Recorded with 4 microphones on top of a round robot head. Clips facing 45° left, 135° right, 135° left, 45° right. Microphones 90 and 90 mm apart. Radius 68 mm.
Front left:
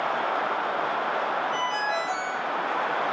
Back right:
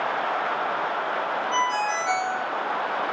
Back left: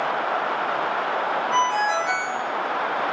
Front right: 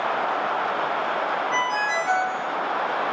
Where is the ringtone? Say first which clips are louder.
Back right 3 dB, back left 3 dB; 145° right, 1.7 m.